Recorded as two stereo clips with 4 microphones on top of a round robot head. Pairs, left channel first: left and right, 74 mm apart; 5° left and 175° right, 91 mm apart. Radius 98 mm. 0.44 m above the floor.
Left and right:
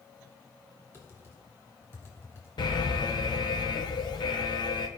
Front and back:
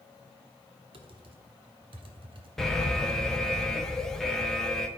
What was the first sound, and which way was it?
Typing on a keyboard, 155° left.